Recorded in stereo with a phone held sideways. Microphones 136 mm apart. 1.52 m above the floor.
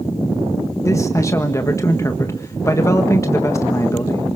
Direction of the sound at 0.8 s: 20° left (ahead or behind).